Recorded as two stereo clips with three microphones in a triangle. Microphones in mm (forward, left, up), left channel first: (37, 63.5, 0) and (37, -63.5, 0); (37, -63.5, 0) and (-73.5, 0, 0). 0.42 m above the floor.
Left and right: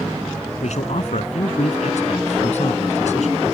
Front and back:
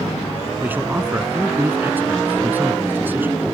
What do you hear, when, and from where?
0.6 s a man speaking: 75° left